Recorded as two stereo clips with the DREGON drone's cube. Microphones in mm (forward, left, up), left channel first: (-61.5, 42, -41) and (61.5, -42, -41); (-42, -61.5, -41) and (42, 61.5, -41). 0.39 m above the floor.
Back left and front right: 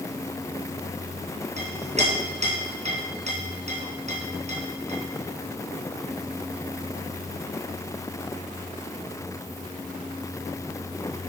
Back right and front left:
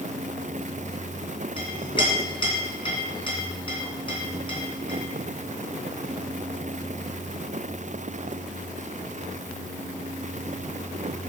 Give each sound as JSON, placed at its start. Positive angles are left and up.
{"t": 1.6, "sound": "a clink", "azimuth_deg": -70, "distance_m": 2.5}